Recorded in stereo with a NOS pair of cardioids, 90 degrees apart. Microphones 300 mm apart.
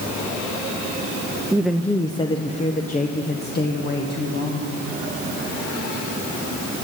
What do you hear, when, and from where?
1.5 s a woman speaking: 10° right, 0.5 m; by 4.8 s 40° left, 2 m